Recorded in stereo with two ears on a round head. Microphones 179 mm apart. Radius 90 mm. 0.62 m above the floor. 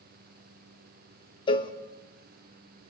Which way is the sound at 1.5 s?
25° left (ahead or behind).